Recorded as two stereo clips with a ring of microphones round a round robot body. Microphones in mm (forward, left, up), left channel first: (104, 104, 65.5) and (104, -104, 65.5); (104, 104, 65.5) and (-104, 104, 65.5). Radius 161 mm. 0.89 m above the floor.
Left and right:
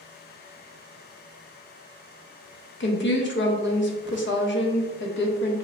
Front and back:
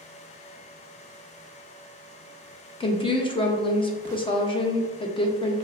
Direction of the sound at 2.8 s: 65° left.